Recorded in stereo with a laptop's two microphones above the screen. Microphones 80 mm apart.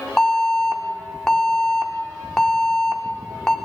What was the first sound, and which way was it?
An alarm, 5° left (ahead or behind).